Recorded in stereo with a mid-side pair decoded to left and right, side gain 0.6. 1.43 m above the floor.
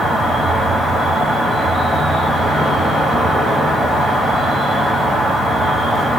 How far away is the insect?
About 0.8 m.